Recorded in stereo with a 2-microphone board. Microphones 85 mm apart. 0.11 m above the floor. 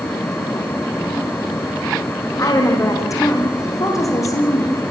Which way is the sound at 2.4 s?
40° left (ahead or behind).